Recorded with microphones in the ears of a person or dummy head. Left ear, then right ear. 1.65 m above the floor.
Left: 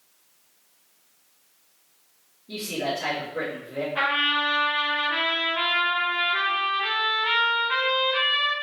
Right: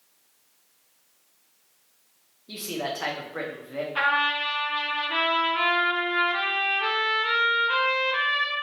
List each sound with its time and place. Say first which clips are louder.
2.5 s a man speaking: left 3 dB; 55° right (ahead or behind), 1.0 m
4.0 s a trumpet: even; 25° right (ahead or behind), 1.0 m